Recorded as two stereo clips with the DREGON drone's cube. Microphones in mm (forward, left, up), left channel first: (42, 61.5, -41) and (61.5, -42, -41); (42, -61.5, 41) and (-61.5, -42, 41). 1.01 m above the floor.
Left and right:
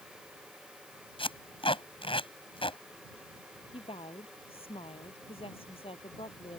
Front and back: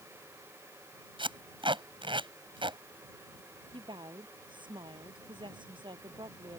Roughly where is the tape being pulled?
Behind left.